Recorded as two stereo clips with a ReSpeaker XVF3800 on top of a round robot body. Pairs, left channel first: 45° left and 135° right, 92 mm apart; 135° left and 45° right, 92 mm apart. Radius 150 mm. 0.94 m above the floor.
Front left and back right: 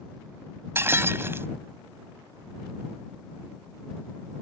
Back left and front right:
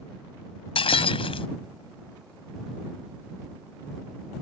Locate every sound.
0.8 s breaking glass: 160° left